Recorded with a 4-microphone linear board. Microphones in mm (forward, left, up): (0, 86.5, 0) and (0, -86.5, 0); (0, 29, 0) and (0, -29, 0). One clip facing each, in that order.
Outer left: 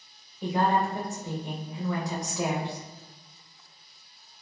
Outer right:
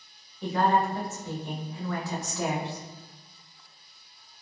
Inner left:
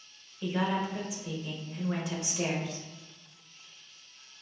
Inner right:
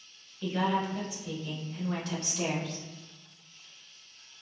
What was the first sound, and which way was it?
A woman speaking, 15° left (ahead or behind).